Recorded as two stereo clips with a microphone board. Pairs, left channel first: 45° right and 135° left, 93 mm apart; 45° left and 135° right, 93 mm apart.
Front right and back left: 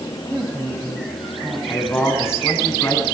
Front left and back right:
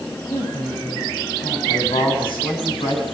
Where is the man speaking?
20° left, 7 m.